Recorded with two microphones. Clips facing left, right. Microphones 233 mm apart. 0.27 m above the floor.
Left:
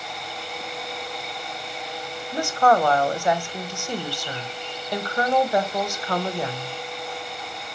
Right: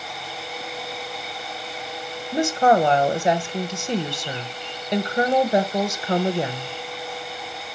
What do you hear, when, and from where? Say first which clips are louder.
2.3 s a woman speaking: right 2 dB; 20° right (ahead or behind), 0.9 m